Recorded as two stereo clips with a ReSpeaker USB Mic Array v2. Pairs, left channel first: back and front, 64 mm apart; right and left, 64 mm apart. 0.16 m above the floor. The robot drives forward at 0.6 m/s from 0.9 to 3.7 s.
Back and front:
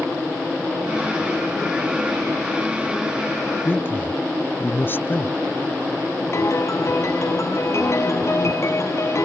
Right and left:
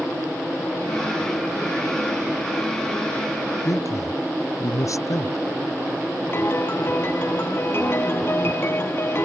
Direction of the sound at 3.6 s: 125° right.